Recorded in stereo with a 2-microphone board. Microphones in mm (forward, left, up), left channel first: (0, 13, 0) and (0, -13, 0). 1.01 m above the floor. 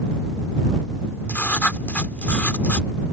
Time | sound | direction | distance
1.3 | writing | 70° left (ahead or behind) | ?